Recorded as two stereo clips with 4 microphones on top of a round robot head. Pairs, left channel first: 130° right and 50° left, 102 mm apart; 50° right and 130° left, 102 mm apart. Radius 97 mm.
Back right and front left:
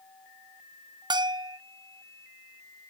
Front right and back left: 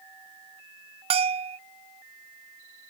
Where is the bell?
100° left.